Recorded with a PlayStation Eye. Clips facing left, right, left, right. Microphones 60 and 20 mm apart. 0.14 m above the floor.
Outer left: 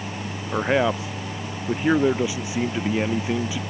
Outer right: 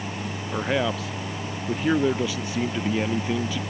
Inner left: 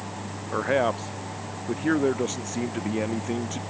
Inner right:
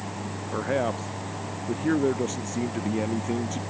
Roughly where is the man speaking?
Left.